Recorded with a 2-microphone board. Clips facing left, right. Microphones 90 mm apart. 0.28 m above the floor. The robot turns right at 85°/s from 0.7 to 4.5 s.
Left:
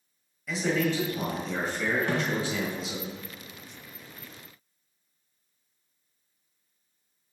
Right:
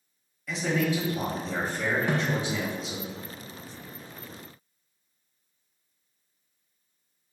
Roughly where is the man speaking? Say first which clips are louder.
Even; behind.